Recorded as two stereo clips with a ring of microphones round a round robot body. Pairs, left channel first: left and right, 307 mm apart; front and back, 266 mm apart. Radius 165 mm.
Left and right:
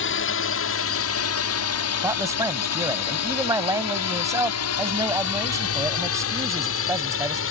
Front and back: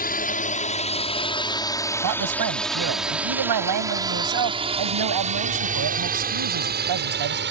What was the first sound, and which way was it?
A drone, 50° left.